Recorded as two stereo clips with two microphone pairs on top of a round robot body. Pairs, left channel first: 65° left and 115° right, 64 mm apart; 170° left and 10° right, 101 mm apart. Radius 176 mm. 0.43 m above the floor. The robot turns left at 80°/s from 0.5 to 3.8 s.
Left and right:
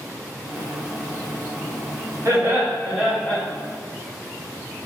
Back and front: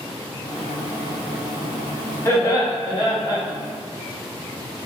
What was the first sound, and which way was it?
Laughter, 145° right.